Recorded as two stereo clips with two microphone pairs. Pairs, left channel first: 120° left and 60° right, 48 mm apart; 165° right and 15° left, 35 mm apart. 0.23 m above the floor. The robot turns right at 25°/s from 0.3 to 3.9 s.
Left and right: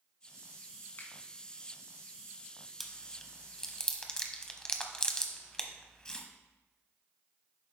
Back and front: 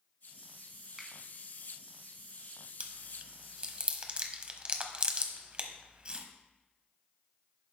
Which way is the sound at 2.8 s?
25° left.